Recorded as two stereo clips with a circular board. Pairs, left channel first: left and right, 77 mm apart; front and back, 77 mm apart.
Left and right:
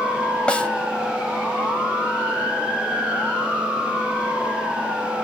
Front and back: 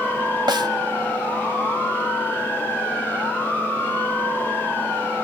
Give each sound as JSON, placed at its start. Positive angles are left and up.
{"t": 0.5, "sound": "a snare drum", "azimuth_deg": 165, "distance_m": 2.0}